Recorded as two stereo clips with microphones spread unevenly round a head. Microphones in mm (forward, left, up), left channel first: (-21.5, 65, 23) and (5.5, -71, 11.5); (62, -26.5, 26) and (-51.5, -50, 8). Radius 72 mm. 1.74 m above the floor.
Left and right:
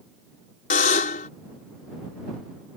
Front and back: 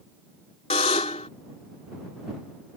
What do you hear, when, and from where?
0.7 s a buzzer: 65° left